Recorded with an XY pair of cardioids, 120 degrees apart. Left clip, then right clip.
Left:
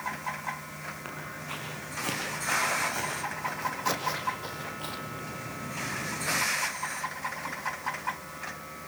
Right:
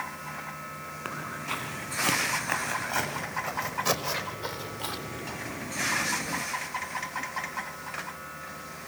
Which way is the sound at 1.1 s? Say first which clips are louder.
Right 4 dB; 25° right.